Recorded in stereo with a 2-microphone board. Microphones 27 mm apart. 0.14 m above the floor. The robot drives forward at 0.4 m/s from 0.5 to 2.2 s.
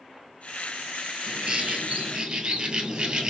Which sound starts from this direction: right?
A bird, at 1.3 s.